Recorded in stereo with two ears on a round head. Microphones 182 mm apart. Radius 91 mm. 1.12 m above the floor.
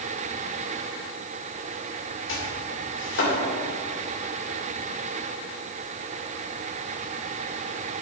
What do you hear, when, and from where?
2.3 s chopping: 65° left (ahead or behind), 3.5 m